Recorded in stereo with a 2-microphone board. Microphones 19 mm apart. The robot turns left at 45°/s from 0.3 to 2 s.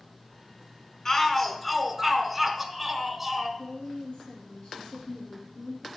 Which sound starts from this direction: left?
A woman speaking, at 3.6 s.